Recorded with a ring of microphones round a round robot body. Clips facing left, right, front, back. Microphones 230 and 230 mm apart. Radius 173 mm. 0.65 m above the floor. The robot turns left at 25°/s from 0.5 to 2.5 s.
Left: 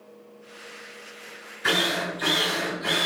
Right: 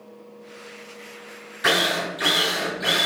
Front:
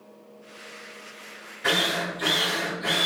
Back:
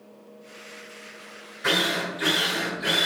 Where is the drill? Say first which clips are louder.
Right 2 dB, back 1 dB; 90° right, 1.0 m; by 3.1 s 110° right, 1.0 m.